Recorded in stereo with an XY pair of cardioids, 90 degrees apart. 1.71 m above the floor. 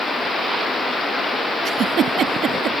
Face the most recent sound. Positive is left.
turn(degrees=-70)